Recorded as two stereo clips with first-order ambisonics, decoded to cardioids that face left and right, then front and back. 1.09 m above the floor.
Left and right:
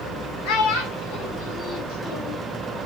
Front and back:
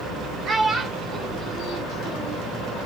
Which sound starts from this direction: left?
A child speaking, at 0.5 s.